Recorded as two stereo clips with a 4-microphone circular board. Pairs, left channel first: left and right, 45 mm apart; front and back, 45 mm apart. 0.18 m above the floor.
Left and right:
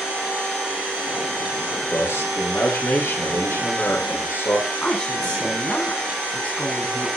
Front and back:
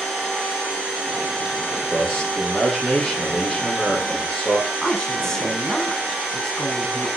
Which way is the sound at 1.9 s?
85° left.